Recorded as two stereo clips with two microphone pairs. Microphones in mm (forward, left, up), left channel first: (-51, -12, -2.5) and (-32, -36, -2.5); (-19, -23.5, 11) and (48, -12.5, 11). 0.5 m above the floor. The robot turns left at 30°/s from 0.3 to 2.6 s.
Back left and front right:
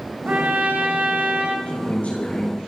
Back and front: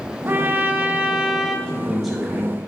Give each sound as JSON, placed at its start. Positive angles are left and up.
{"t": 0.3, "sound": "a trumpet", "azimuth_deg": -40, "distance_m": 1.6}
{"t": 1.7, "sound": "a man speaking", "azimuth_deg": 110, "distance_m": 4.5}